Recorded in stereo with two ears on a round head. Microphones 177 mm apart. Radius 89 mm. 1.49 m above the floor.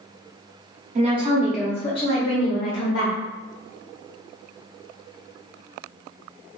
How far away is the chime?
I don't hear a chime.